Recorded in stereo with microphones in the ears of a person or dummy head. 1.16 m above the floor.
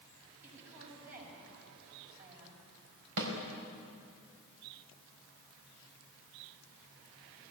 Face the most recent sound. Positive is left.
turn(degrees=-75)  # may be behind; listen again after turning